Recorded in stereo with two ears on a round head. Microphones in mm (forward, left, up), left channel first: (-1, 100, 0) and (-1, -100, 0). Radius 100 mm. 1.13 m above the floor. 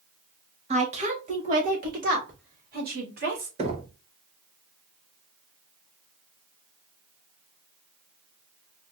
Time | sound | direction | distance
0.7 | a woman speaking | 30° right (ahead or behind) | 1.7 m
3.6 | knocking | 30° right (ahead or behind) | 1.1 m